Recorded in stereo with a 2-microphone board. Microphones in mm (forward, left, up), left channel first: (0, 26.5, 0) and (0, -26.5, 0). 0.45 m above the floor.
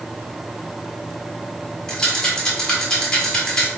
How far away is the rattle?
About 1.2 m.